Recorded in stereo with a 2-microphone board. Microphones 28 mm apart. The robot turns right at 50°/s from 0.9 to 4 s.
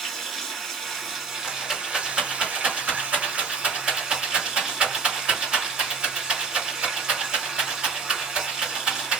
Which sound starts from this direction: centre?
A rattle, at 1.4 s.